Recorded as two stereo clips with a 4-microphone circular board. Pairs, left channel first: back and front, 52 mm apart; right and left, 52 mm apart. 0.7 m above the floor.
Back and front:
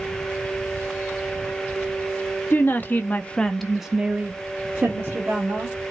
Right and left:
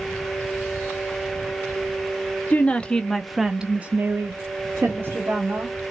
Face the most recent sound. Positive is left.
turn(degrees=50)